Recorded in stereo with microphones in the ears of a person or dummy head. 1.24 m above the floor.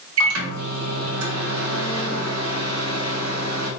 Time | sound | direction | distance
0.2 | a microwave | 70° right (ahead or behind) | 1.8 m